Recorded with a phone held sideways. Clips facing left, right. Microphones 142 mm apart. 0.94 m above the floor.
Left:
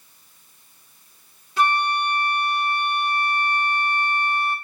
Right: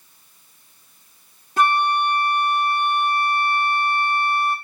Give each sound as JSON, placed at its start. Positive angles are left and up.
{"t": 1.6, "sound": "a flute", "side_deg": -45, "distance_m": 1.4}